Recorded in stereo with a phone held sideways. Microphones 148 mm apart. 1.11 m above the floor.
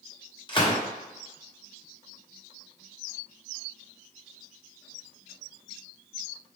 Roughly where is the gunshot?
Left.